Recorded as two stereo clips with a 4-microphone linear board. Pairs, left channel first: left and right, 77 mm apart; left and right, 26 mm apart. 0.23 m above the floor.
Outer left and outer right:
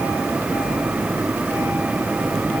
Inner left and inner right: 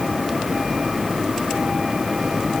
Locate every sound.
Only background noise.